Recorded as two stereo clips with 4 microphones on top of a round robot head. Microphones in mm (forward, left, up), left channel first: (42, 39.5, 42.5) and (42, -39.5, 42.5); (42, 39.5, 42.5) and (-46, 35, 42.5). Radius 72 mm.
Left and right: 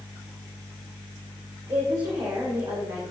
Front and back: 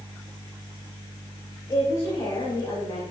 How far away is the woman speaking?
About 4 m.